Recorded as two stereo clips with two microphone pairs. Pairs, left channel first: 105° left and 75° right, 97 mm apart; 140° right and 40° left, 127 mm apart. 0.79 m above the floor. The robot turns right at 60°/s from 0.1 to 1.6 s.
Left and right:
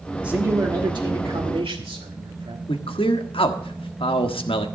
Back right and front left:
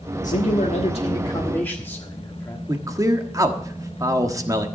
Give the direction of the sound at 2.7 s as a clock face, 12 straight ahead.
9 o'clock.